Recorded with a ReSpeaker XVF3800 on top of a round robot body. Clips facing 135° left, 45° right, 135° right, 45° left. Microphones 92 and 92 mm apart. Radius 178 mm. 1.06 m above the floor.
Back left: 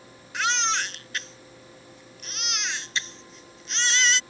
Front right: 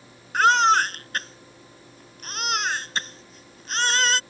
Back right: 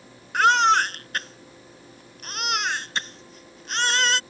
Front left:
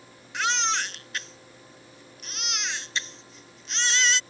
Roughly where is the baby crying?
Right.